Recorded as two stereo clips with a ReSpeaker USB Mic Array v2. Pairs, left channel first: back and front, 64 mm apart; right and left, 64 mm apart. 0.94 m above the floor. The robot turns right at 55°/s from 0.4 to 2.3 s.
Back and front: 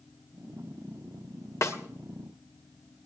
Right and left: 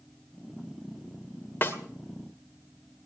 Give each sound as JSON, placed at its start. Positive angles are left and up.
{"t": 1.6, "sound": "a snare drum", "azimuth_deg": -145, "distance_m": 2.0}